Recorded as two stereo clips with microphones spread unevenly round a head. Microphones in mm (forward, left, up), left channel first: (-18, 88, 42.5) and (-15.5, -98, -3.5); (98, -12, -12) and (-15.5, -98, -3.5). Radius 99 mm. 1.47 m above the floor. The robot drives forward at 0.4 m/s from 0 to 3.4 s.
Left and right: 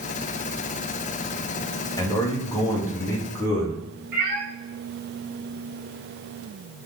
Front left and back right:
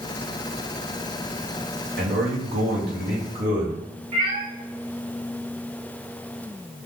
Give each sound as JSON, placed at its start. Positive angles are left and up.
{"t": 2.0, "sound": "a man speaking", "azimuth_deg": 165, "distance_m": 0.7}
{"t": 4.1, "sound": "a cat meowing", "azimuth_deg": -130, "distance_m": 1.4}